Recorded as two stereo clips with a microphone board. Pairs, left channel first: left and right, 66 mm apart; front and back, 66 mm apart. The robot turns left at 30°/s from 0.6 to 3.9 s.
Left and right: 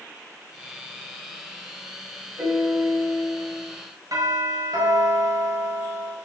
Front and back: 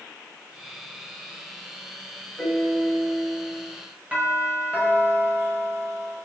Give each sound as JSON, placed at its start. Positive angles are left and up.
{"t": 2.4, "sound": "a piano", "azimuth_deg": -80, "distance_m": 5.5}
{"t": 4.1, "sound": "a doorbell", "azimuth_deg": -110, "distance_m": 5.0}